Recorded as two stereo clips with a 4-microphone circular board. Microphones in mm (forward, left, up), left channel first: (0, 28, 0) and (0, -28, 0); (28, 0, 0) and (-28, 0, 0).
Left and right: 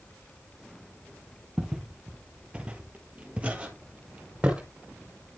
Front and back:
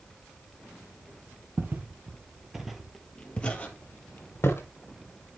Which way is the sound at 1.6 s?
165° right.